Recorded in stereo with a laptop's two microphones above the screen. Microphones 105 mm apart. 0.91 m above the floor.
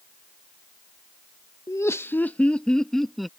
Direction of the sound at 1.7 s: 30° left (ahead or behind).